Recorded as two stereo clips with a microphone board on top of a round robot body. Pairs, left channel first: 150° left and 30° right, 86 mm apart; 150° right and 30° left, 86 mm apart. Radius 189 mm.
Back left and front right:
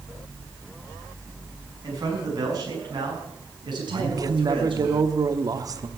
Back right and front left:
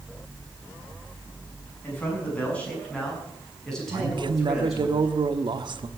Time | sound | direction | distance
1.8 | a man speaking | 80° right | 6.5 m
3.9 | a man speaking | 10° left | 1.4 m